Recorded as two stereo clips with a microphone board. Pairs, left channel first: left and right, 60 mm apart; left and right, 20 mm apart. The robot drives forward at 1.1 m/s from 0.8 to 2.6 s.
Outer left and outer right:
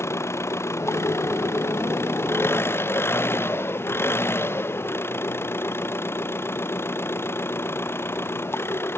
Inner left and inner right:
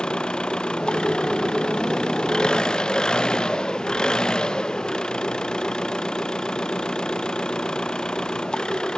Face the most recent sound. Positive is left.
turn(degrees=45)  # may be behind; listen again after turning